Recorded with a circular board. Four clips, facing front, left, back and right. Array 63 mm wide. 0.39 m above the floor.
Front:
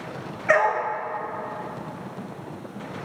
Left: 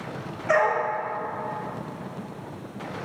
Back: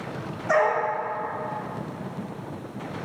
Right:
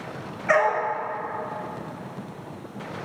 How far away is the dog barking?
About 2 m.